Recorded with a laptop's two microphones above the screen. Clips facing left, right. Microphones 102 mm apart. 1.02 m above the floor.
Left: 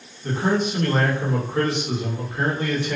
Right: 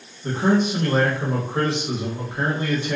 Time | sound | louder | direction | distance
0.2 | a man speaking | right 2 dB | 25° right (ahead or behind) | 1.4 m